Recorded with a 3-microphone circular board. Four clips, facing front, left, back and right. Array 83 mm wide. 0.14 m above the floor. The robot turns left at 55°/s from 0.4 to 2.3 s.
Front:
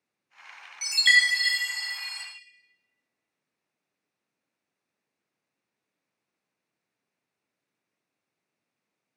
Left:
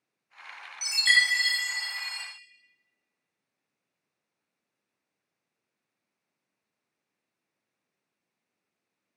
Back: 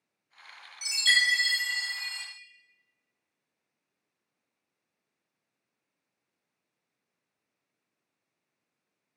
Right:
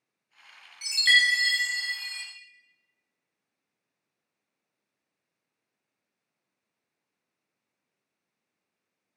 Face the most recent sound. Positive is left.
turn(degrees=-75)